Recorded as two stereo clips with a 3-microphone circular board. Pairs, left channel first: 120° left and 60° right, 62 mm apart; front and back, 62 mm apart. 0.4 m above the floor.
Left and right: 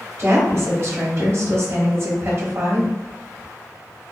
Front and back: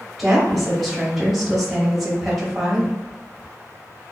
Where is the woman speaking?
95° right, 1.4 m.